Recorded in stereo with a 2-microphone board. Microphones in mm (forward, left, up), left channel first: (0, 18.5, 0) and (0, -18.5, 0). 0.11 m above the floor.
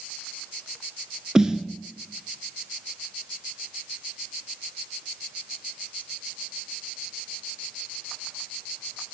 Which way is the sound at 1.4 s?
20° right (ahead or behind).